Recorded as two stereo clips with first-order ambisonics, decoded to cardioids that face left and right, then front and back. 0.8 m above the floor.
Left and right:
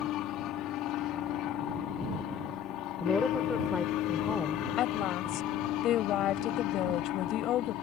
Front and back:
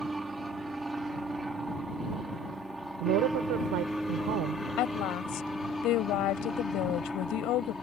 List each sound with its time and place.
0.0 s an aircraft: 100° left; by 7.8 s 80° left
3.0 s a woman speaking: 170° left
4.8 s a woman speaking: 40° left